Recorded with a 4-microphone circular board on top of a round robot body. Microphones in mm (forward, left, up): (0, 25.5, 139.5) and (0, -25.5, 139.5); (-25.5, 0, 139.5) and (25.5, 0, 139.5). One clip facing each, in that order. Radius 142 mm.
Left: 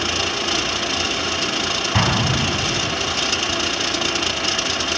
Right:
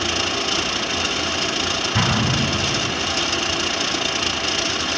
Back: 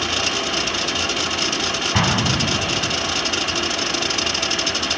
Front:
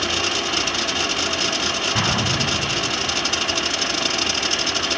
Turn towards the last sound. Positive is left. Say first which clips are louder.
# left 1 dB, back 4 dB
turn(degrees=130)